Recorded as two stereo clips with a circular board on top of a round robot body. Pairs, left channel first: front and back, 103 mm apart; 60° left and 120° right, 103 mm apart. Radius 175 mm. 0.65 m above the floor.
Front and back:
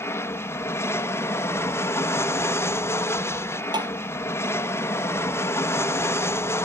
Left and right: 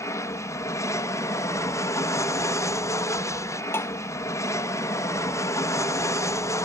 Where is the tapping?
130° left.